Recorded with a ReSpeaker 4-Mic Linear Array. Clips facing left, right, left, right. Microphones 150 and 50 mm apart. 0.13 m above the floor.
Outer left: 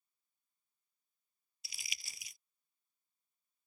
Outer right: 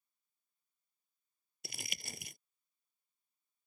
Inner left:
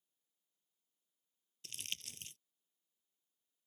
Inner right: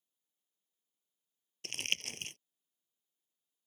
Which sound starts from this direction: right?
Crumpling, at 1.6 s.